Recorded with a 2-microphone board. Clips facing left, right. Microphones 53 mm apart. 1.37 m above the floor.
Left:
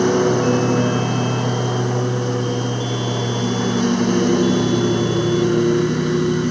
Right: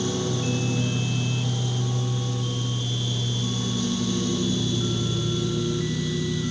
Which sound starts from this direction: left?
A lawn mower, at 0.0 s.